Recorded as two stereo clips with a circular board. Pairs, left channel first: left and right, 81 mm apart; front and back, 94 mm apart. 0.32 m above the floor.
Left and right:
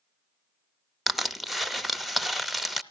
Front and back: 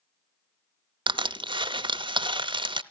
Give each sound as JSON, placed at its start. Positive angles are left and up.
{"t": 1.1, "sound": "crushing", "azimuth_deg": 180, "distance_m": 0.5}